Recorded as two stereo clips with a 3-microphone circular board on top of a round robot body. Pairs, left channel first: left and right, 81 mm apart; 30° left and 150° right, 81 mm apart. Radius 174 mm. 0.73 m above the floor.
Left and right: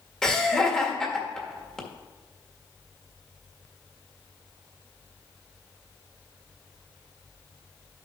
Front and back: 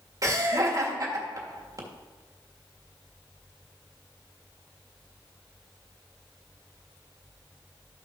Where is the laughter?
170° left, 1.7 m.